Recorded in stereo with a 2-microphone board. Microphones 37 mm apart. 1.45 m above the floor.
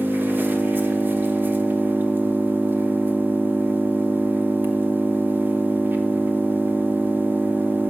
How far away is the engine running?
About 0.8 m.